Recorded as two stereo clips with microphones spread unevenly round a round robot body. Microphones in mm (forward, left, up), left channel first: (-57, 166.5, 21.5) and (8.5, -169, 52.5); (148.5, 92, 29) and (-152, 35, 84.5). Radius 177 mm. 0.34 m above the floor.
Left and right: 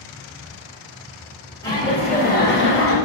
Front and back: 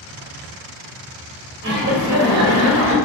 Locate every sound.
1.6 s laughter: 175° left, 1.8 m; by 3.0 s 140° left, 1.9 m